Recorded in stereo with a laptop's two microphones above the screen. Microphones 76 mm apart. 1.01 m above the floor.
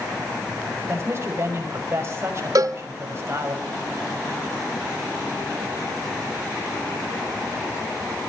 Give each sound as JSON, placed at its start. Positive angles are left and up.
{"t": 0.9, "sound": "a man speaking", "side_deg": -35, "distance_m": 6.0}
{"t": 2.5, "sound": "a cowbell", "side_deg": -55, "distance_m": 0.6}